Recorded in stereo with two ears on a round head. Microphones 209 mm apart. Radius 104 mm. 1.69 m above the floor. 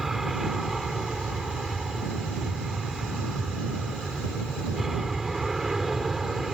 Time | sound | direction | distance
0.0 | an aircraft | centre (ahead or behind) | ?